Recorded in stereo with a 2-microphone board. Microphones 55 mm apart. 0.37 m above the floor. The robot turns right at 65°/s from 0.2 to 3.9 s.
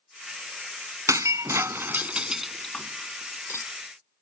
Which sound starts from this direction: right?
Breaking glass, at 1.1 s.